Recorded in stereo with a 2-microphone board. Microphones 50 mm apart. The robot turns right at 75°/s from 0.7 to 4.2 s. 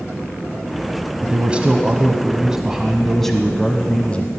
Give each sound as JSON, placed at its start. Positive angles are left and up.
{"t": 1.2, "sound": "a man speaking", "side_deg": -15, "distance_m": 1.0}